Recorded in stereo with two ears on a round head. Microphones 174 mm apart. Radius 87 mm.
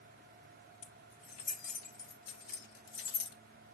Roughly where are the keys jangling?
Left.